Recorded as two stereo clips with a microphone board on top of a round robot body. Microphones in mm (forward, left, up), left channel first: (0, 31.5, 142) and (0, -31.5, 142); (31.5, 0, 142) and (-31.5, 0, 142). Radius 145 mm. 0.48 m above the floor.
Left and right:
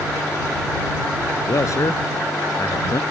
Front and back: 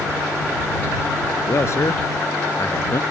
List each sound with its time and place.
1.5 s a man speaking: 45° left